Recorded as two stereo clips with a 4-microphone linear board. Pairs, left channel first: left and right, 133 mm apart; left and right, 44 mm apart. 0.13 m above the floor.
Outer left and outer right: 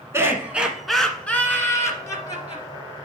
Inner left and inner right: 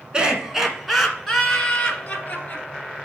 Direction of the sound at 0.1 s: 20° right (ahead or behind).